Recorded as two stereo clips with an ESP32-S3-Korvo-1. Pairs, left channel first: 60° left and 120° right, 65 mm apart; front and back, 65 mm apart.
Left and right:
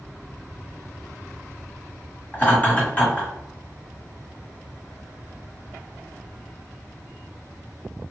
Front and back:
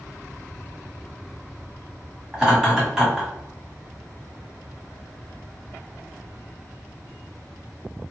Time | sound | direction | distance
2.3 | laughter | 105° left | 1.7 m